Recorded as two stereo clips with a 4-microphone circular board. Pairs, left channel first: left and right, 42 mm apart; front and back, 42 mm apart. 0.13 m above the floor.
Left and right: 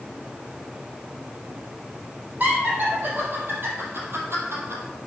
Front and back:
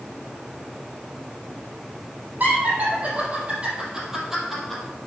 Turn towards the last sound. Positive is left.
turn(degrees=-85)